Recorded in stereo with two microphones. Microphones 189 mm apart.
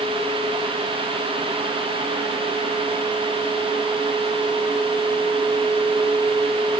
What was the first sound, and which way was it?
Only background noise.